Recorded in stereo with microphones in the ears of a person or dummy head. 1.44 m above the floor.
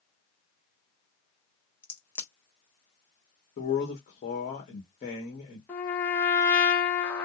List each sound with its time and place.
1.8 s a crack: 15° left (ahead or behind), 1.0 m
3.6 s a man speaking: 45° left (ahead or behind), 1.6 m
5.7 s a trumpet: 10° left (ahead or behind), 1.0 m